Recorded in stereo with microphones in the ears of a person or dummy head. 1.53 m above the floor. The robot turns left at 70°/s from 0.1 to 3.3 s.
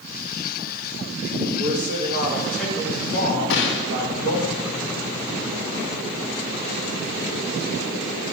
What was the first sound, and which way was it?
A man speaking, 110° right.